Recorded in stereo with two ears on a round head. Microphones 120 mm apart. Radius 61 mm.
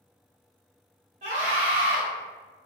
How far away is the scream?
About 1.5 m.